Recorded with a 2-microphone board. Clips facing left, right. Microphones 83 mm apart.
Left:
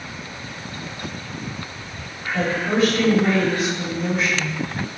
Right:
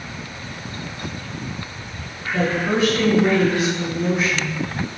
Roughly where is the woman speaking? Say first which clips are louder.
Right 1 dB; right.